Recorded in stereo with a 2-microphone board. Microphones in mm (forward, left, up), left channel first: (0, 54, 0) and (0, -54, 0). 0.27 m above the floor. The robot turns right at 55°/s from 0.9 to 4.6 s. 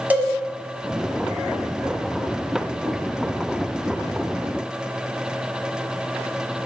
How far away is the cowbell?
About 1.4 m.